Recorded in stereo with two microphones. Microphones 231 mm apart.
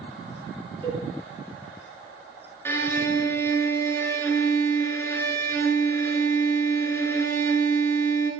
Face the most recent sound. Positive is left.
turn(degrees=10)  # may be behind; listen again after turning